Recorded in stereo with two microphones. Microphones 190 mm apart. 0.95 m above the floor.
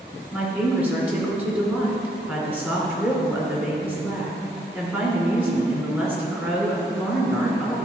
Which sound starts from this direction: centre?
A woman speaking, at 0.3 s.